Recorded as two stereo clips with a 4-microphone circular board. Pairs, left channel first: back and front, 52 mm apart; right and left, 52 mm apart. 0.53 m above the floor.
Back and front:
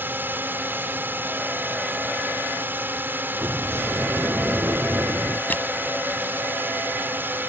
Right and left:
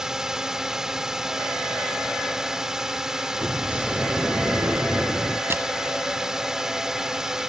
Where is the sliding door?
30° left.